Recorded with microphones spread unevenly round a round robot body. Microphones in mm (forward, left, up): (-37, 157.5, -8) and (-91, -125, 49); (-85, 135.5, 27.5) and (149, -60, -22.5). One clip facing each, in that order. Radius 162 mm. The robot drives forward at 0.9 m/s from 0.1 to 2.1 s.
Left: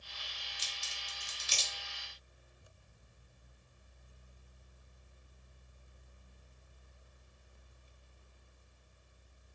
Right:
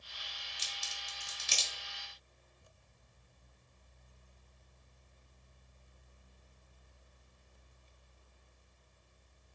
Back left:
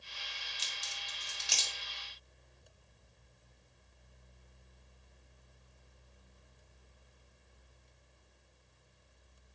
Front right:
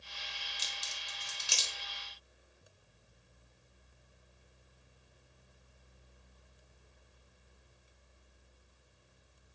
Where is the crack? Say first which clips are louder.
Right 1 dB, front right 1 dB; 75° right, 1.1 m; by 1.7 s 130° right, 1.3 m.